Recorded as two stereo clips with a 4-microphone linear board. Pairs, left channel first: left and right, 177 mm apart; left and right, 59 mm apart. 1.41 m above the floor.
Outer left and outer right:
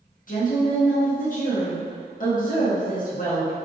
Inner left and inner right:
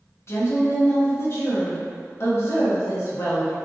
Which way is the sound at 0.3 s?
50° left (ahead or behind).